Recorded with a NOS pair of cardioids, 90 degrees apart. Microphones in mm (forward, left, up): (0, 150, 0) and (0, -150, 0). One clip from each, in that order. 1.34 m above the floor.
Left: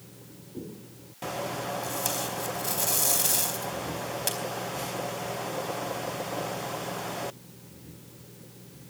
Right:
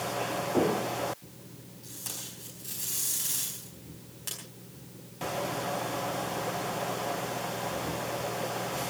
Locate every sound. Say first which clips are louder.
1.8 s tape being pulled: left 11 dB; 70° left, 4 m